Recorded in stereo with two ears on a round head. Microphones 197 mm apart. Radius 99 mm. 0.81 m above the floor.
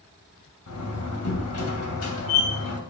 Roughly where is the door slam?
Left.